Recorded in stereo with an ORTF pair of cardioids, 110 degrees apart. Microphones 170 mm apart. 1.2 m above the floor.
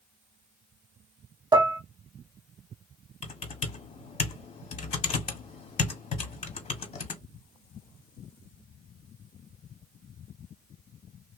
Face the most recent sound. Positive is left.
turn(degrees=40)